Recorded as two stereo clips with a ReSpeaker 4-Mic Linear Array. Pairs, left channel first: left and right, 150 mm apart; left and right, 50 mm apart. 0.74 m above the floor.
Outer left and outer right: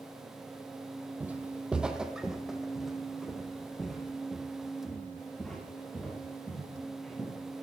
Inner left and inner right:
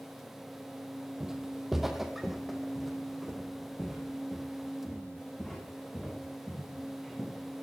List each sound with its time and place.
1.2 s footsteps: 10° right (ahead or behind), 1.1 m; by 7.3 s 5° left (ahead or behind), 5.5 m